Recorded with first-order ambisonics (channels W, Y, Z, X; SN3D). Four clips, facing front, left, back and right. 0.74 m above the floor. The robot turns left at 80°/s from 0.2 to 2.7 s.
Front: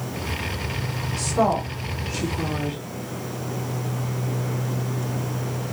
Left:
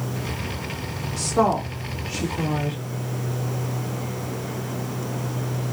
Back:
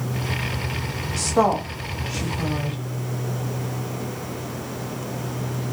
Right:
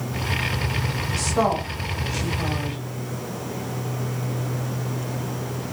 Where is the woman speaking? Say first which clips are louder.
Left 2 dB, back 2 dB; 160° right, 1.3 m; by 2.8 s 75° left, 1.3 m.